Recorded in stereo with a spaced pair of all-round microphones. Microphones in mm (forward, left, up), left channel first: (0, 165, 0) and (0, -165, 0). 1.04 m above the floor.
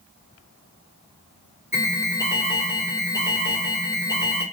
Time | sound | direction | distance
1.7 | an alarm | 10° right (ahead or behind) | 2.5 m